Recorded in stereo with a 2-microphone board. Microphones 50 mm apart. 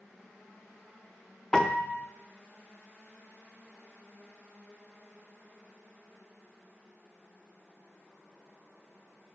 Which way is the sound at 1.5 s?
10° left (ahead or behind).